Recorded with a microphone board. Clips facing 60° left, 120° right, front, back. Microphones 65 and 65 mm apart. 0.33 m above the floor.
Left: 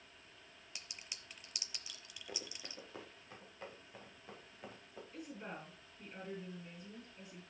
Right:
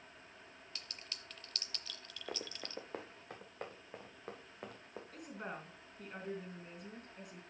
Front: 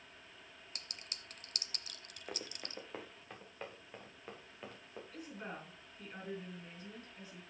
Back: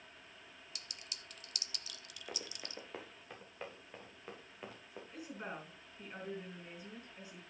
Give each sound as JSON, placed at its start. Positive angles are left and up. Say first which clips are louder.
{"t": 0.8, "sound": "a clink", "louder": "right 1 dB, front 2 dB", "azimuth_deg": -10, "distance_m": 0.7}
{"t": 2.3, "sound": "running footsteps", "louder": "right 5 dB, front 1 dB", "azimuth_deg": -85, "distance_m": 1.7}
{"t": 5.1, "sound": "a woman speaking", "louder": "right 1 dB, back 2 dB", "azimuth_deg": -110, "distance_m": 4.0}